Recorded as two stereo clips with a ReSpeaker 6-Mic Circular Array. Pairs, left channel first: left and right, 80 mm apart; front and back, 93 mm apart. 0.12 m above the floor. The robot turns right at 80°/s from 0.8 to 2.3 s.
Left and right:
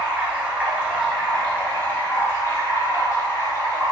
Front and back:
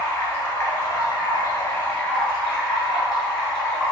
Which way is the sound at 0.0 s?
35° right.